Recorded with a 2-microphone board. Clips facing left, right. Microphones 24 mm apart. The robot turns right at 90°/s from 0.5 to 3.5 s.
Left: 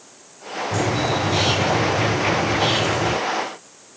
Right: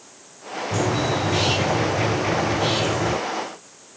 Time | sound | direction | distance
0.7 | a bird | 20° right | 8.5 m